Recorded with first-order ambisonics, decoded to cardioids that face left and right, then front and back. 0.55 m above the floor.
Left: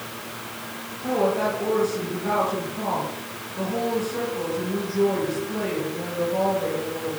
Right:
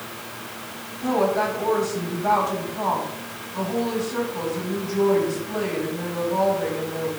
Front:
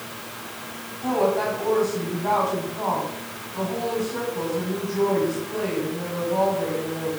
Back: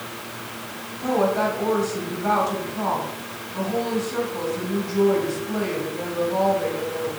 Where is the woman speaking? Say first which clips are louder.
Right 1 dB, back 1 dB; 155° right, 3.5 m.